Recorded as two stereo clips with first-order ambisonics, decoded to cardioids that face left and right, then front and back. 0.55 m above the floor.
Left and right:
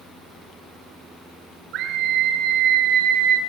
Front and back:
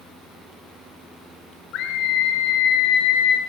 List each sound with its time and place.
1.7 s a scream: 40° right, 6.5 m